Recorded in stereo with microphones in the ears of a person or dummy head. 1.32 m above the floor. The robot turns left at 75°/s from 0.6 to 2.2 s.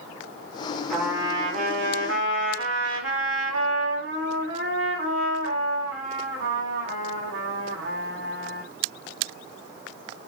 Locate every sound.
0.9 s a trumpet: straight ahead, 4 m; by 8.6 s 100° right, 4 m